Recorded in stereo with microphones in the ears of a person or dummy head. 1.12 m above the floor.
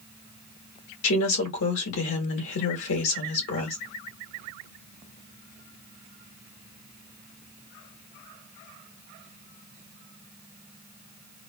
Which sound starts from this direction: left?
A woman speaking, at 1.0 s.